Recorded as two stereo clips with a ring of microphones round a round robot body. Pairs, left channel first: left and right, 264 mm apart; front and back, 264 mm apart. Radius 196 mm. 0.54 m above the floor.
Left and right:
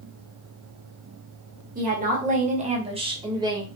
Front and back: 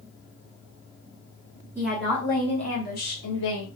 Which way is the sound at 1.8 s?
105° right.